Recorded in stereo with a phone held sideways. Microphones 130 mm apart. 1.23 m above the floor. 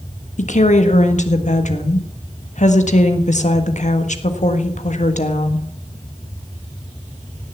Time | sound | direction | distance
0.4 | a woman speaking | 65° left (ahead or behind) | 1.5 m